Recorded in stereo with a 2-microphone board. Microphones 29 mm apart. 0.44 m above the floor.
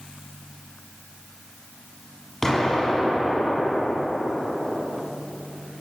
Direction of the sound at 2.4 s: 15° left (ahead or behind).